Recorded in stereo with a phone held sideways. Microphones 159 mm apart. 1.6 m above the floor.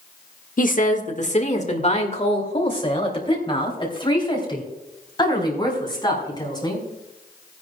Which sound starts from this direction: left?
A woman speaking, at 0.6 s.